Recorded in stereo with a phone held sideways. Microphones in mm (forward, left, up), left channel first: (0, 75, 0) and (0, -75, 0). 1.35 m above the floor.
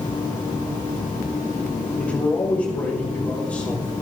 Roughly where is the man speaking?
Centre.